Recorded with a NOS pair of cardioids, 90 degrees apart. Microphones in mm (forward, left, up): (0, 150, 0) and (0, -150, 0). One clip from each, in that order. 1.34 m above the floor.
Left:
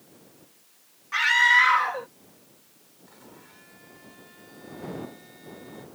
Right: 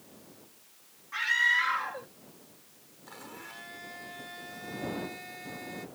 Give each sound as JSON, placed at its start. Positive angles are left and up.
{"t": 1.1, "sound": "a scream", "azimuth_deg": 60}
{"t": 3.1, "sound": "a blender", "azimuth_deg": -50}